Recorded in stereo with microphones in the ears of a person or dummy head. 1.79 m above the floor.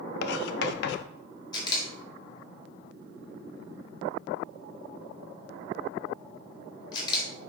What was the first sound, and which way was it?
Writing, 70° left (ahead or behind).